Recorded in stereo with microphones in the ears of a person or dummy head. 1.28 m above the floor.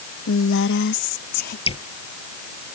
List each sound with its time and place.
0.3 s a woman speaking: 65° left (ahead or behind); by 1.6 s 50° left (ahead or behind)
1.7 s dripping: 30° left (ahead or behind)